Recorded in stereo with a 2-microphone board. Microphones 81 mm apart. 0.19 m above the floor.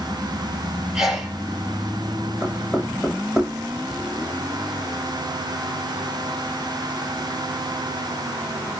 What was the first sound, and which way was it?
A sneeze, 5° right (ahead or behind).